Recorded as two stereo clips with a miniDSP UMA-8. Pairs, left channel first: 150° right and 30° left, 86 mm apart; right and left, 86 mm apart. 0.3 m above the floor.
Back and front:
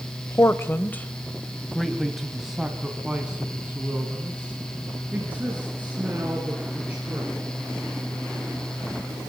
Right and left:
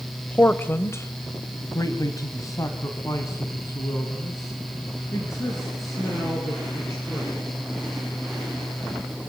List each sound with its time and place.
0.3 s a man speaking: 145° right, 1.0 m; by 7.7 s 40° right, 5.5 m